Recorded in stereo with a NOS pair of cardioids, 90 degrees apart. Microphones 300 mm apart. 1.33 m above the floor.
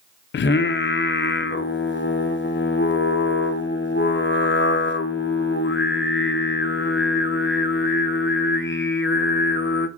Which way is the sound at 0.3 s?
40° left.